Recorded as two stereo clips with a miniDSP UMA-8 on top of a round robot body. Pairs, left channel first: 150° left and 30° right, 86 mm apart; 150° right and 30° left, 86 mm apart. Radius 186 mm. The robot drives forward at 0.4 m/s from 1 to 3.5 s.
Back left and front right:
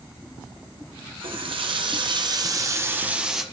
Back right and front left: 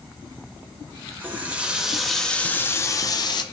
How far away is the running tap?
About 0.9 m.